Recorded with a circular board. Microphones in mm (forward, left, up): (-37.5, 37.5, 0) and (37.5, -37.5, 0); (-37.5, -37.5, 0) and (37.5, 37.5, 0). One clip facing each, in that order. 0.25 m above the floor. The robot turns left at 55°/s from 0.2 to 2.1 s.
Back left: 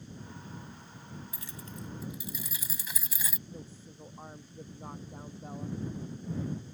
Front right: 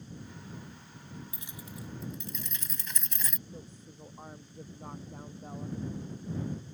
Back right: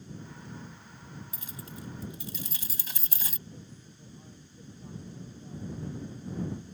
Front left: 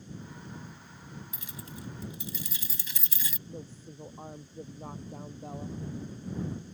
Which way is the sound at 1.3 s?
100° right.